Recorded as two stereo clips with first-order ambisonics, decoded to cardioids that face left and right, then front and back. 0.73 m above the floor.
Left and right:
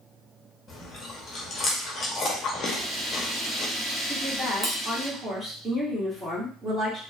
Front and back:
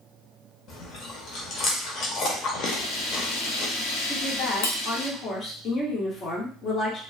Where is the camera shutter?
15° right, 0.7 m.